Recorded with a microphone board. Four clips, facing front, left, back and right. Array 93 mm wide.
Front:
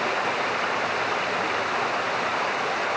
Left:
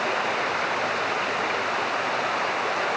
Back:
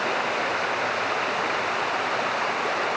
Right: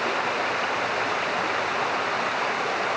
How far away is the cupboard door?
No cupboard door in this recording.